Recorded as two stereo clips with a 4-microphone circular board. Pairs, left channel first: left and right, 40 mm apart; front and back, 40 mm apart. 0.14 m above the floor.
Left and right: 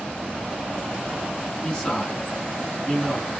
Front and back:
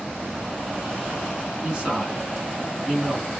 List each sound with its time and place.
1.6 s a man speaking: 145° left, 1.2 m